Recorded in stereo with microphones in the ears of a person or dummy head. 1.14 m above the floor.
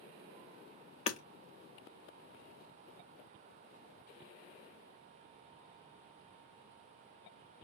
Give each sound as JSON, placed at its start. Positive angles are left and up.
{"t": 1.1, "sound": "hammering", "side_deg": 40, "distance_m": 0.8}